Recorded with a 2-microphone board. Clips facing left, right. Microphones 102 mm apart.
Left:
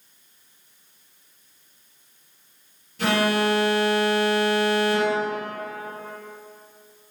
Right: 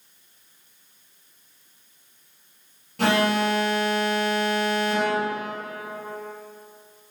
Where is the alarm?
55° right (ahead or behind), 4 m.